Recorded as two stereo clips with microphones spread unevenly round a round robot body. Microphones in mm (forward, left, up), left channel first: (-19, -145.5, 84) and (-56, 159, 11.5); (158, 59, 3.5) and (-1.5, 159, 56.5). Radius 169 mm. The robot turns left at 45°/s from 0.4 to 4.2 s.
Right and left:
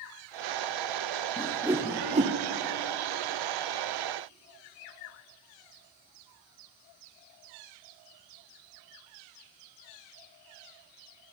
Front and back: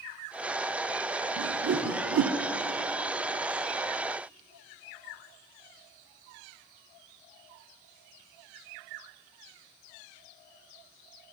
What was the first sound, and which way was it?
A whoosh, 175° right.